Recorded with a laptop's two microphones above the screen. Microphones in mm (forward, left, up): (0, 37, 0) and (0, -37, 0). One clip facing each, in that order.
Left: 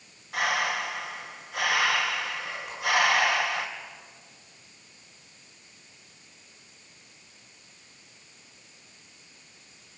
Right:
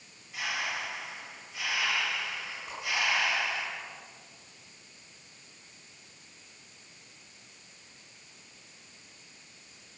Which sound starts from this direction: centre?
A whoosh, at 2.7 s.